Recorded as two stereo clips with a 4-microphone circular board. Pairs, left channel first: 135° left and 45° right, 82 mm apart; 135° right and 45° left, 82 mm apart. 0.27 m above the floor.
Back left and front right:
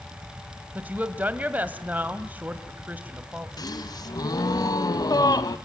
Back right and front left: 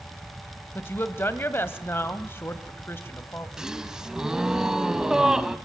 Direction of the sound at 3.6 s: 125° left.